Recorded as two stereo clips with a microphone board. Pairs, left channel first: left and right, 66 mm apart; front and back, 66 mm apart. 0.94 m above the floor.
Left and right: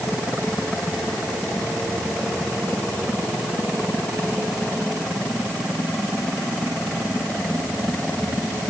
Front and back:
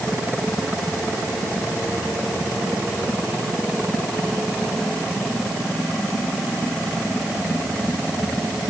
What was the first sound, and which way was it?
Only background noise.